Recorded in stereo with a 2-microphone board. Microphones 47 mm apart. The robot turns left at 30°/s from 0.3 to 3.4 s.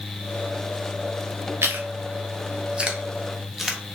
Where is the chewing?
55° right (ahead or behind), 0.6 m; by 3.8 s 5° right (ahead or behind), 0.6 m.